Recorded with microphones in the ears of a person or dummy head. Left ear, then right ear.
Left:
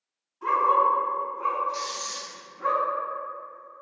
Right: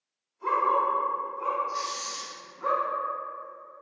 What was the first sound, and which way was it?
A dog barking, 65° left (ahead or behind).